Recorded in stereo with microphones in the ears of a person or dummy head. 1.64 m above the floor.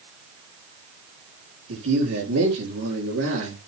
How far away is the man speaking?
About 7 m.